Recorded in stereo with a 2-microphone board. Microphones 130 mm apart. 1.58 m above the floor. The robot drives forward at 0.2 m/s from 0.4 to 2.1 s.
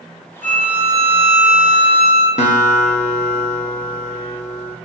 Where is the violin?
70° left (ahead or behind), 1.3 m; by 2.3 s 60° left (ahead or behind), 1.4 m.